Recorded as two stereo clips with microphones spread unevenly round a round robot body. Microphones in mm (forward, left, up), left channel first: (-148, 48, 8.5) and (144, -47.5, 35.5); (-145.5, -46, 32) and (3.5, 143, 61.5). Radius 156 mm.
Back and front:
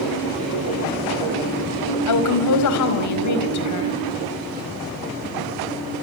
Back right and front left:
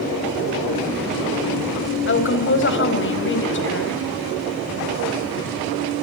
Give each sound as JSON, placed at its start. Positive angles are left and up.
{"t": 2.1, "sound": "a woman speaking", "azimuth_deg": -165, "distance_m": 5.0}